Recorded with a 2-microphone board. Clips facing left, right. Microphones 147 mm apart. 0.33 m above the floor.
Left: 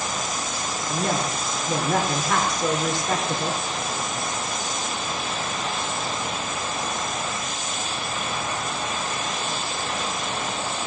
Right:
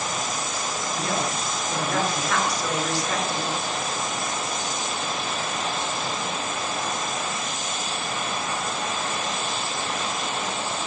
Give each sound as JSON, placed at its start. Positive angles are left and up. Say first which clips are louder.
{"t": 0.9, "sound": "a woman speaking", "louder": "left 3 dB", "side_deg": 60, "distance_m": 3.5}